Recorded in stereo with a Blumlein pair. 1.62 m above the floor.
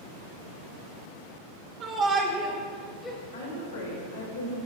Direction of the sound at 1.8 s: 40° right.